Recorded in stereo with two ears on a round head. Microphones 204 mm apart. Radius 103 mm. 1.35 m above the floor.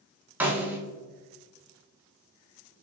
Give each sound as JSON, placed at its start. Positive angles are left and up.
{"t": 0.4, "sound": "a snare drum", "side_deg": -10, "distance_m": 0.9}